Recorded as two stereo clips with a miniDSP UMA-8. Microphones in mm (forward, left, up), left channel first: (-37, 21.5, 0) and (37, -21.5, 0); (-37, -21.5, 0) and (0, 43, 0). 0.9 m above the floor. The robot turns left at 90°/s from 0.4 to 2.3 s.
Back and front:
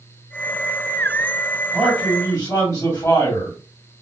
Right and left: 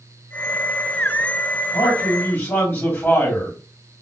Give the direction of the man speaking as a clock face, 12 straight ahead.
4 o'clock.